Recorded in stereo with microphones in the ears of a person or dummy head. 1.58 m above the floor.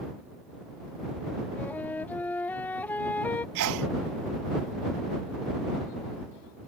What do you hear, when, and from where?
1.6 s a flute: 10° left (ahead or behind)
3.5 s a sneeze: 55° right (ahead or behind)